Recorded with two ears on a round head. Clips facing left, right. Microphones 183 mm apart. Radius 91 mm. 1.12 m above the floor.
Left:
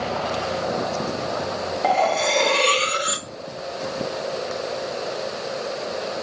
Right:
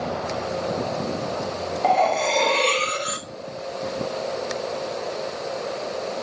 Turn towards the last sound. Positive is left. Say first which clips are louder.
# right 1 dB
turn(degrees=10)  # may be behind; listen again after turning